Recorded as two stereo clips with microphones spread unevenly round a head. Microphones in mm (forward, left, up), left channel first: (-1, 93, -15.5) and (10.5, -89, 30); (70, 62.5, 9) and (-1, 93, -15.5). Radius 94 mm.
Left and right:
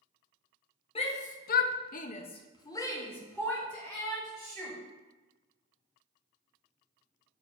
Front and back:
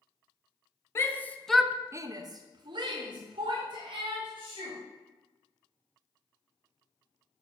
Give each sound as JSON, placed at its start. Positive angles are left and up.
{"t": 0.9, "sound": "a shout", "azimuth_deg": 40, "distance_m": 0.9}